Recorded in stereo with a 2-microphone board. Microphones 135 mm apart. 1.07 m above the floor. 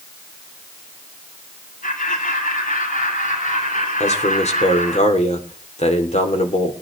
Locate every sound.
1.8 s laughter: 90° left, 6.5 m; by 5.0 s 75° left (ahead or behind), 4.5 m
4.0 s a man speaking: 55° left (ahead or behind), 2.5 m